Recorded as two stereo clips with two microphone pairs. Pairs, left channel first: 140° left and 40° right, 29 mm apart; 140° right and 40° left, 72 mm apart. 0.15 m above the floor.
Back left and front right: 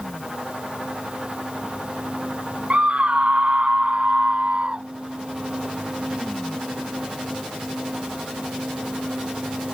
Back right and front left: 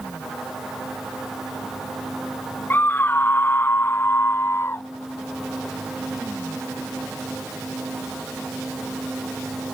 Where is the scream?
80° right; by 4.8 s 85° right.